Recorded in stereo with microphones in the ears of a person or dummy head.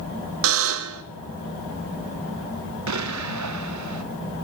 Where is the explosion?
85° right, 0.8 m.